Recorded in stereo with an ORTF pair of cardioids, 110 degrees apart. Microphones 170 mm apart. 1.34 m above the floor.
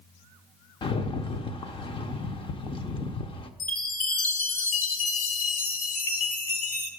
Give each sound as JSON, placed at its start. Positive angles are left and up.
{"t": 0.8, "sound": "a rattle", "azimuth_deg": 30, "distance_m": 0.7}
{"t": 3.6, "sound": "a chime", "azimuth_deg": 55, "distance_m": 1.4}